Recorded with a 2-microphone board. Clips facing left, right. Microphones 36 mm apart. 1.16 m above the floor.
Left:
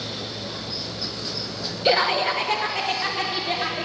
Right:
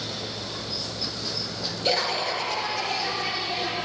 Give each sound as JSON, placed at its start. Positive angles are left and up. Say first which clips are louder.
{"t": 1.9, "sound": "laughter", "louder": "left 6 dB", "side_deg": 20, "distance_m": 0.9}